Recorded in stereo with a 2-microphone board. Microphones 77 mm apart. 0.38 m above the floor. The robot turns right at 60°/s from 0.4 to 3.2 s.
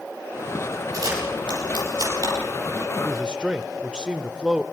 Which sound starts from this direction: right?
A camera shutter, at 0.9 s.